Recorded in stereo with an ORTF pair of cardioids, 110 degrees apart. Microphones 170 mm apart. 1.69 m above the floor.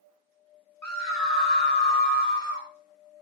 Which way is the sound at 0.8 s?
20° left.